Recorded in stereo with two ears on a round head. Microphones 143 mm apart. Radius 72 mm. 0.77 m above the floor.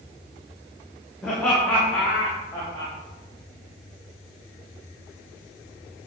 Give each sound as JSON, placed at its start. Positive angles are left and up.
{"t": 1.2, "sound": "laughter", "side_deg": 5, "distance_m": 2.0}